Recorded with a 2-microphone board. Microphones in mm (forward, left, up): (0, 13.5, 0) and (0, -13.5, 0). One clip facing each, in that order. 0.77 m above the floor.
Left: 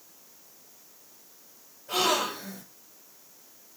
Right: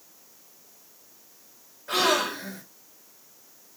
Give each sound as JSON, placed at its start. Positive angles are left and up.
{"t": 1.9, "sound": "a gasp", "side_deg": -80, "distance_m": 3.5}